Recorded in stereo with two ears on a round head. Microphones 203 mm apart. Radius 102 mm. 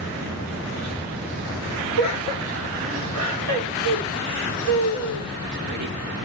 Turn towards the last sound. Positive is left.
turn(degrees=-85)